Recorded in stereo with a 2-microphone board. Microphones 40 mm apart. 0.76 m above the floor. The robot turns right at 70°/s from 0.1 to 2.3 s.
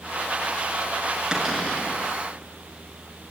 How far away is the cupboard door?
About 6 m.